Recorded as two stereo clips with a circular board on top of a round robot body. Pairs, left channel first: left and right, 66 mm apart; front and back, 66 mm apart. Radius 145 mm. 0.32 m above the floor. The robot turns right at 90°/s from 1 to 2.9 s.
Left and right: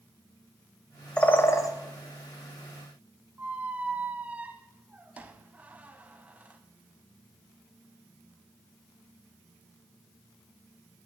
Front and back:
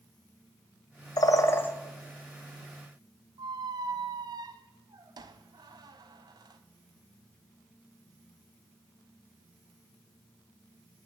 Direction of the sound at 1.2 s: 15° left.